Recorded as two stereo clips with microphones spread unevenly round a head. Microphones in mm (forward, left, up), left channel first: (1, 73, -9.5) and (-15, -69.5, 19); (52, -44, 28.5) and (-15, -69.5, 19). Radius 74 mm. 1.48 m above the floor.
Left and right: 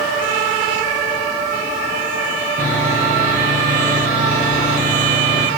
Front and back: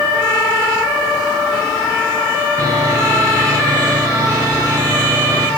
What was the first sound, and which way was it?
Sawing, 120° right.